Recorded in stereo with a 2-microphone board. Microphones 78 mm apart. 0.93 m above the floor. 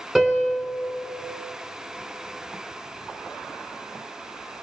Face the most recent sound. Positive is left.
turn(degrees=5)  # may be behind; listen again after turning